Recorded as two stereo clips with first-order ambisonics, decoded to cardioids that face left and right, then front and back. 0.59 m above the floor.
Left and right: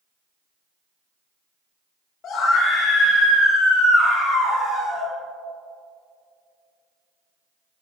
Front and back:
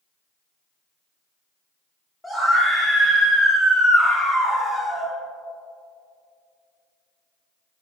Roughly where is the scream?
Left.